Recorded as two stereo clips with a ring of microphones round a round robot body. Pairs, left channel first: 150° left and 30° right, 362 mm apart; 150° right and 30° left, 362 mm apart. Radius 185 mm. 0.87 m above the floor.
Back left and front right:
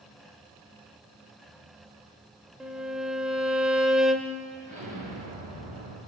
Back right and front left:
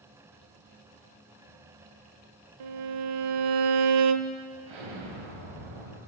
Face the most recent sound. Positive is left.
turn(degrees=40)